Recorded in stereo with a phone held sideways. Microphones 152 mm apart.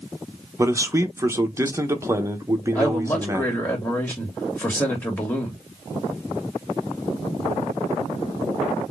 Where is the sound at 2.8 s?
15° left (ahead or behind), 2.5 m.